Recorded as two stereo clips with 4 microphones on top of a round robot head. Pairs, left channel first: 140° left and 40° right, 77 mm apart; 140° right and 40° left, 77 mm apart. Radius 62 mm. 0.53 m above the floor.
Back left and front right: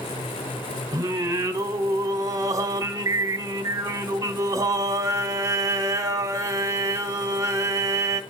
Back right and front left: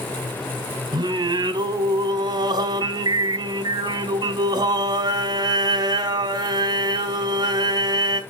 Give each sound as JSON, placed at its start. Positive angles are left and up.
{"t": 0.9, "sound": "singing", "azimuth_deg": 10, "distance_m": 1.1}